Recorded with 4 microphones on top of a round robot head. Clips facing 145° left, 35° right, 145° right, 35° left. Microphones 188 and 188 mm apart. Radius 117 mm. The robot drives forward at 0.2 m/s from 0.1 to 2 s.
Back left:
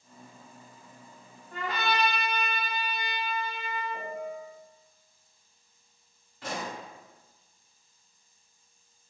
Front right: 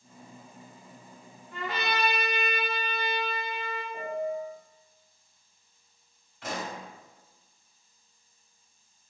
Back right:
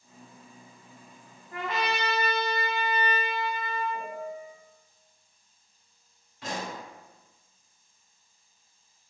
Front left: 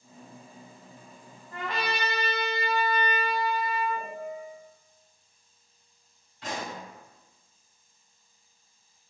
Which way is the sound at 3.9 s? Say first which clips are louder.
Front right 5 dB, front left 1 dB; 150° left.